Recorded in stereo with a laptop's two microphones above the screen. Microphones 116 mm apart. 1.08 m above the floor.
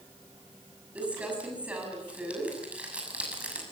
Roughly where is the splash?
I don't hear a splash.